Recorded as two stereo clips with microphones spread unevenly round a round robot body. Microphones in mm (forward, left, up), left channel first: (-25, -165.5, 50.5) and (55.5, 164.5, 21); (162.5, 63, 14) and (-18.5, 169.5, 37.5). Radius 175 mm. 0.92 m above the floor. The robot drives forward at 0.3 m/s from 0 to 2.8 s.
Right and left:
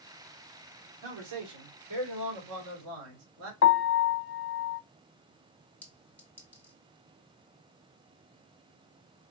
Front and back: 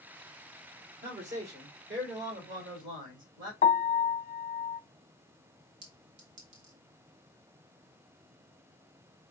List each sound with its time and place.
1.0 s a man speaking: 110° left, 2.5 m; by 3.5 s 125° left, 2.5 m
3.6 s a piano: 55° right, 0.6 m
5.8 s a clink: 170° left, 1.3 m